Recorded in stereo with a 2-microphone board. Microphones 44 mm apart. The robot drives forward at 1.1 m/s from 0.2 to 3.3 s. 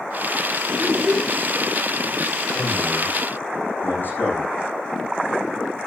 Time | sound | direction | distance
0.8 | a child speaking | centre (ahead or behind) | 1.6 m
2.5 | a man speaking | 50° left (ahead or behind) | 8 m